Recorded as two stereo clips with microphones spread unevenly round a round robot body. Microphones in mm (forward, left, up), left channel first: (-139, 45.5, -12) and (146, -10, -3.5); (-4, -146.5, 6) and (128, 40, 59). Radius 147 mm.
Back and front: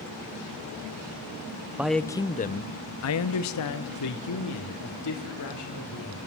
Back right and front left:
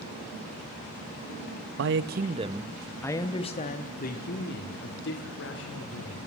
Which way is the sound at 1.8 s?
75° left.